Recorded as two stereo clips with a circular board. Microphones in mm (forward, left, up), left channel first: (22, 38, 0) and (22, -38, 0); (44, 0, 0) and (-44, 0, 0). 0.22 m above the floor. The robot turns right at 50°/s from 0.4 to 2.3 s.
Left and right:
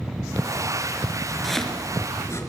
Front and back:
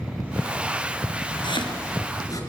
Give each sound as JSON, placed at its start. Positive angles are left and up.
{"t": 1.4, "sound": "chopping", "azimuth_deg": 0, "distance_m": 4.5}